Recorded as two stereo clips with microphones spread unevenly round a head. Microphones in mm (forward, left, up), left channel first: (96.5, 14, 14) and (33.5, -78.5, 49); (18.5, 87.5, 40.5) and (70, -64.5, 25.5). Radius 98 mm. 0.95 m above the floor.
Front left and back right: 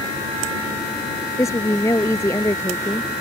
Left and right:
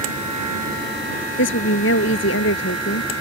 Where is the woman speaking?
130° left.